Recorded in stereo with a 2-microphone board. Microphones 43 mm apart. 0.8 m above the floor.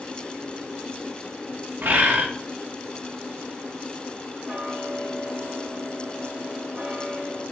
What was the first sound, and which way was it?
A bird, 55° right (ahead or behind).